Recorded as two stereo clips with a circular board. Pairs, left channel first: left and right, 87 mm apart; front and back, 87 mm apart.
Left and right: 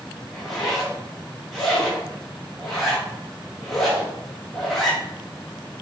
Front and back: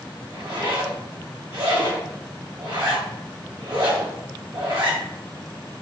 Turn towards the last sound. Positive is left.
turn(degrees=180)